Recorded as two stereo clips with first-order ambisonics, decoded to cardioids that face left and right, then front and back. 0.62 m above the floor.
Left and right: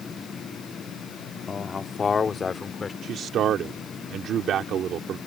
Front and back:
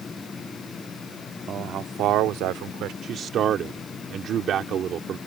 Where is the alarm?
I don't hear an alarm.